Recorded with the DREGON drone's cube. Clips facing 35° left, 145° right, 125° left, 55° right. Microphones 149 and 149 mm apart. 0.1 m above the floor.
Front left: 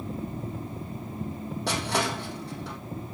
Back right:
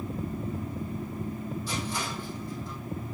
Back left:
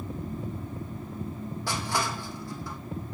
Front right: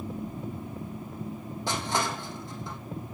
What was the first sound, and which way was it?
Crushing, 15° left.